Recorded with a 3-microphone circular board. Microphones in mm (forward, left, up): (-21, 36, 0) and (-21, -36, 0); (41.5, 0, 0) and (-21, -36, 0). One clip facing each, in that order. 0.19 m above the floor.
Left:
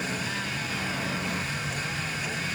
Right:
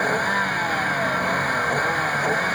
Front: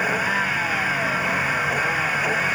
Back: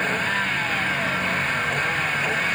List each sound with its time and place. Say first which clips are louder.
0.0 s a vehicle: right 11 dB, front 2 dB; 50° right